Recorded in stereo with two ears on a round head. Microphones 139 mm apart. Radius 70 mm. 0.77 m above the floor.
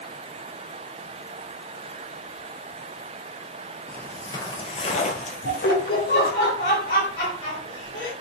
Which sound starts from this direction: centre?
Footsteps, at 3.9 s.